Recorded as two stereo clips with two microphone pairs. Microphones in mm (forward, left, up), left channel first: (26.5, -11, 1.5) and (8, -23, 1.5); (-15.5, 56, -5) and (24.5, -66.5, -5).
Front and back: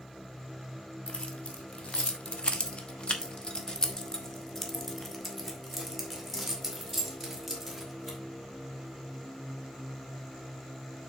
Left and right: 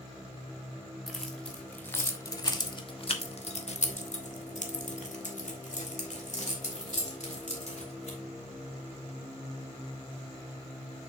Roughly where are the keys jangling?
Ahead.